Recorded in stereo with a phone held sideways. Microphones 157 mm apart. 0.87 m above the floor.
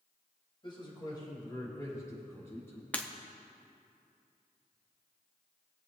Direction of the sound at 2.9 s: 10° left (ahead or behind).